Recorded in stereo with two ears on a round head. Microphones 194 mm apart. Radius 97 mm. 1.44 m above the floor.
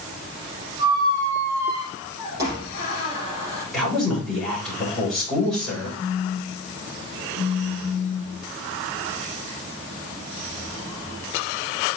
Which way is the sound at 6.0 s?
75° left (ahead or behind).